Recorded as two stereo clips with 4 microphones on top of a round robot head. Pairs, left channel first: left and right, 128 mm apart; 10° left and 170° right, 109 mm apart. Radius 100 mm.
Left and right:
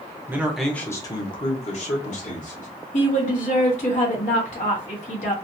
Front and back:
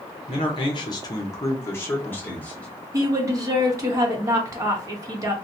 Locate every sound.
0.3 s a man speaking: 25° right, 0.5 m; by 2.7 s 85° left, 1.2 m
2.9 s a woman speaking: 130° left, 0.8 m